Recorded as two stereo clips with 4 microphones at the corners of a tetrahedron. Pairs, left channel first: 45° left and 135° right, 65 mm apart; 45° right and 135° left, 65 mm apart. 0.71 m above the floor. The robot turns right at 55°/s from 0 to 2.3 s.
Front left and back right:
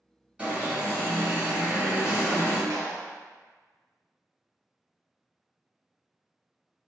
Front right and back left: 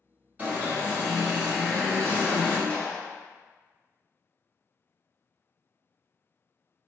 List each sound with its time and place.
0.4 s an alarm: 170° left, 1.8 m; by 2.6 s 85° right, 1.8 m
2.7 s a clap: 115° right, 1.0 m